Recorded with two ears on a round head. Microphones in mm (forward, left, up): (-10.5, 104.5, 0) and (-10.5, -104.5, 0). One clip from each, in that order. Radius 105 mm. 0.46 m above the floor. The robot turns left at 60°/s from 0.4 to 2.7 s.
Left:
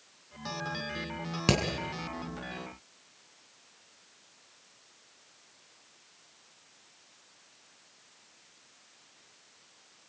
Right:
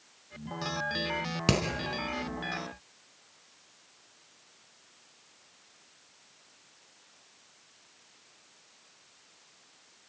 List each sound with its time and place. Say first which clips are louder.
1.5 s hammering: left 1 dB; centre (ahead or behind), 4 m; by 1.6 s 10° left (ahead or behind), 4 m